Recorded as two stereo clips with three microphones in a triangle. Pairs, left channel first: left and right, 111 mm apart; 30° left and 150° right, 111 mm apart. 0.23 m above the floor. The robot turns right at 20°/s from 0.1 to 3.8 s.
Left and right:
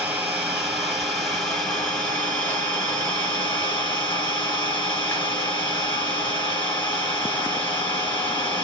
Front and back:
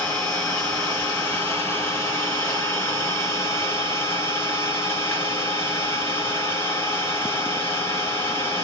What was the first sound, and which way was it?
An engine running, 15° right.